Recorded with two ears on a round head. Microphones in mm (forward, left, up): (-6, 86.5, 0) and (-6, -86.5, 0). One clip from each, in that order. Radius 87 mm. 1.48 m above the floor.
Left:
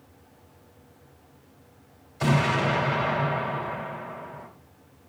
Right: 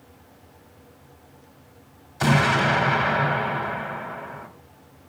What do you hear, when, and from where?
2.2 s an explosion: 20° right (ahead or behind), 4 m